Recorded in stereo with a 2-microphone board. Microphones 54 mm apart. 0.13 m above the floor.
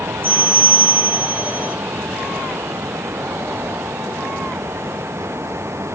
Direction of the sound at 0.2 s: 45° right (ahead or behind).